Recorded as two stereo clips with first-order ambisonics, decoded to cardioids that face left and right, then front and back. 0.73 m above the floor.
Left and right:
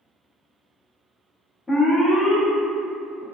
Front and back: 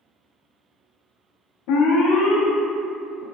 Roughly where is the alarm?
Ahead.